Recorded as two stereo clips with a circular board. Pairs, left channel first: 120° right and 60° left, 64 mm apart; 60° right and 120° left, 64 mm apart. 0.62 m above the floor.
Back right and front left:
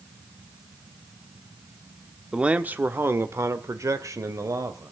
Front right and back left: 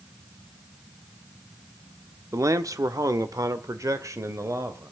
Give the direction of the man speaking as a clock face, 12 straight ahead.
8 o'clock.